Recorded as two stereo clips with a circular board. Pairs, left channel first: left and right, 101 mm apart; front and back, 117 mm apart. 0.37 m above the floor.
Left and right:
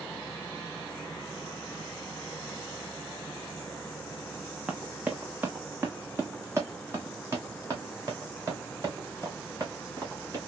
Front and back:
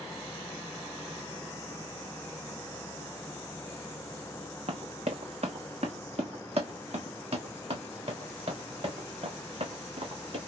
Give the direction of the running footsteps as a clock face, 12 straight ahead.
6 o'clock.